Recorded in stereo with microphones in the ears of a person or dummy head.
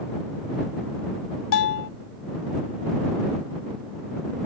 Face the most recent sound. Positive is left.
turn(degrees=65)  # may be behind; listen again after turning